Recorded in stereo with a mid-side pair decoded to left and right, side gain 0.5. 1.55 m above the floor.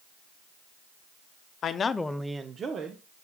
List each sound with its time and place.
1.6 s a man speaking: 55° left, 0.9 m; by 3.0 s 60° right, 1.6 m